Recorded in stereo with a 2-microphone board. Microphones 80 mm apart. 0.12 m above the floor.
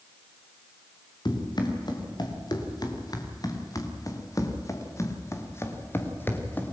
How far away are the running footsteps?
About 4.5 m.